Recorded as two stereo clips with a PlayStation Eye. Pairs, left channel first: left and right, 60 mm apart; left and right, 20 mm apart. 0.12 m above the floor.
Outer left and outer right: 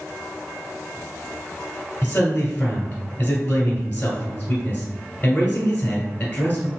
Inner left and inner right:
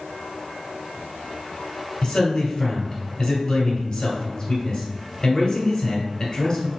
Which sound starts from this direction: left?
A man speaking, at 2.0 s.